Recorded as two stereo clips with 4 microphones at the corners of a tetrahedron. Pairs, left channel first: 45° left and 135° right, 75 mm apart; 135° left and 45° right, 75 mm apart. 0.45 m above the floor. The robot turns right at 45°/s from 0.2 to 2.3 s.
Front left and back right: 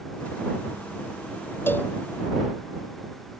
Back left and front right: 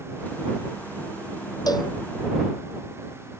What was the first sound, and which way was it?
A cowbell, 105° left.